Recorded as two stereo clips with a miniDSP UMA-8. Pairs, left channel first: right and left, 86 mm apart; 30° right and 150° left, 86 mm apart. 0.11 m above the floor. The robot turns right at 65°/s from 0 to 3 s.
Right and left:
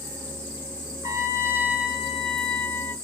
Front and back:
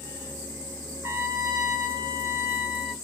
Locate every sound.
1.0 s a trumpet: 100° left, 0.7 m; by 2.9 s 135° right, 0.7 m